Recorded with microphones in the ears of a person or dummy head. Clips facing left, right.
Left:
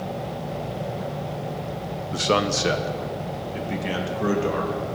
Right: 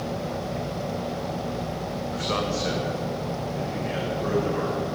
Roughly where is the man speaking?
Left.